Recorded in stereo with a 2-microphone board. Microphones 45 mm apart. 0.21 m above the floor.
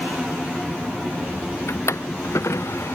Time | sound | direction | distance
1.7 | a drawer | 80° left | ?